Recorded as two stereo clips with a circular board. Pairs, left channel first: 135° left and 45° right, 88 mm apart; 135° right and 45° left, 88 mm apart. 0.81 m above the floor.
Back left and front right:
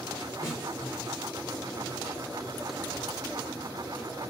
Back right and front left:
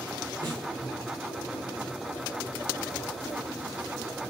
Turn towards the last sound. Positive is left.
turn(degrees=85)